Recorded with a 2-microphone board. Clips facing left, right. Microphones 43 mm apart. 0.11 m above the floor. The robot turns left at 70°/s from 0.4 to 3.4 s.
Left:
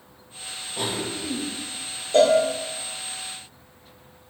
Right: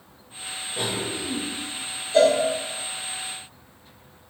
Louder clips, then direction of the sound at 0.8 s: Even; 25° right (ahead or behind).